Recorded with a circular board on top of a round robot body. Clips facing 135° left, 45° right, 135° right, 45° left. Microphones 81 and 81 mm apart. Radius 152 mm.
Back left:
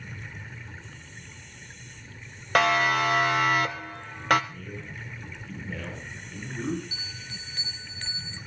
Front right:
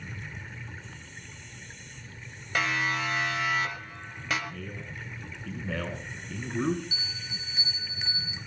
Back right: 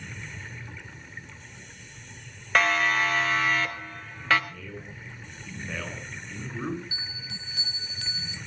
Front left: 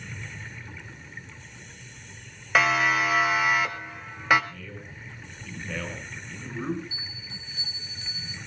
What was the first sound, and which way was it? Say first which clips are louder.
A siren: back left 7 dB, front left 1 dB; 130° left.